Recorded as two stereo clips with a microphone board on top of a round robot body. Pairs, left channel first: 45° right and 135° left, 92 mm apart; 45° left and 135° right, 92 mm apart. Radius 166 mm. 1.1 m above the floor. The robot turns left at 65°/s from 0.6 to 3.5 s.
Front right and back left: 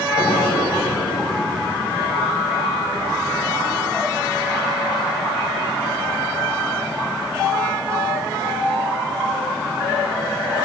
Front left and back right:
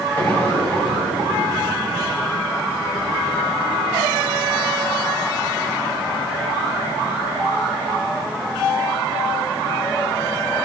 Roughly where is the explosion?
Ahead right.